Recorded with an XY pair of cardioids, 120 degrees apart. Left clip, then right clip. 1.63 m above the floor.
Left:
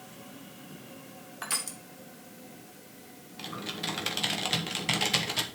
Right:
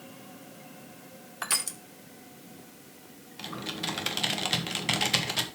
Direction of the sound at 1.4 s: 25° right.